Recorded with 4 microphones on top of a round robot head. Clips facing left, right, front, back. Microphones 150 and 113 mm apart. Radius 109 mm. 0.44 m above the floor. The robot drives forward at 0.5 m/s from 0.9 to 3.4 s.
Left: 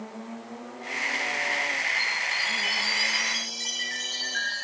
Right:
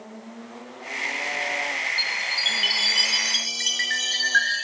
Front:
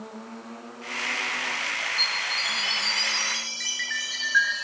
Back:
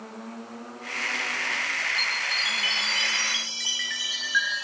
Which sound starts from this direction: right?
A chime, at 2.0 s.